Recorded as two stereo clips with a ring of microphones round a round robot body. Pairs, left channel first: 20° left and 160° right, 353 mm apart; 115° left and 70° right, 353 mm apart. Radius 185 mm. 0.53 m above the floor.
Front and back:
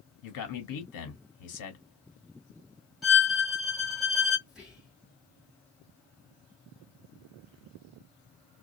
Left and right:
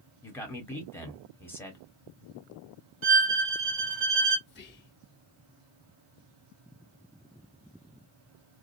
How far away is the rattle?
I don't hear a rattle.